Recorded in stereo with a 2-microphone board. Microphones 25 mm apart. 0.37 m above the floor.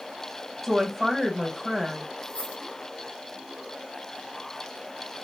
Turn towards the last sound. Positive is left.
turn(degrees=80)